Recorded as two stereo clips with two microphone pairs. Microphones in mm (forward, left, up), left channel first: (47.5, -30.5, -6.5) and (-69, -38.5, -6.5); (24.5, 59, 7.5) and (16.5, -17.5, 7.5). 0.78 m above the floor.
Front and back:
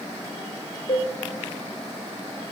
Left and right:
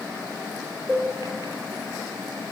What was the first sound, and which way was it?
A cowbell, 20° right.